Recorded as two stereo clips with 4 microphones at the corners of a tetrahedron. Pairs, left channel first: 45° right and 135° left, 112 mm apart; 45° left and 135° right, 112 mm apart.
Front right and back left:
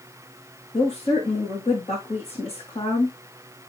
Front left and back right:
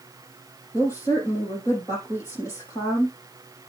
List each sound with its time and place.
0.7 s a woman speaking: 15° right, 6.5 m